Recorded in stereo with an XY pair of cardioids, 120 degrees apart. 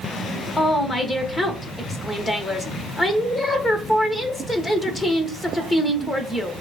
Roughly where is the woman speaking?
Ahead.